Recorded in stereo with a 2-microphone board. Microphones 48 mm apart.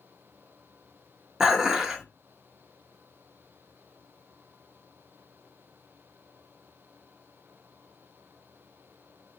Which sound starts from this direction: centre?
Dishes clattering, at 1.4 s.